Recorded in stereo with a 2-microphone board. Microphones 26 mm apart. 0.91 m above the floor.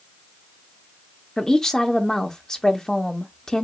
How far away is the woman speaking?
About 0.8 m.